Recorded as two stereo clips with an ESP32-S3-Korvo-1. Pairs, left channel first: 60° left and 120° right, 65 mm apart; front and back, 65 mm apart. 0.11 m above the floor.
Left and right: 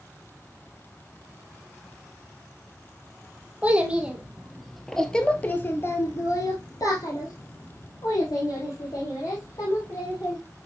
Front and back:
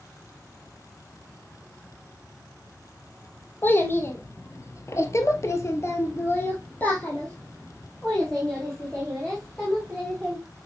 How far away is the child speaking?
About 1.8 m.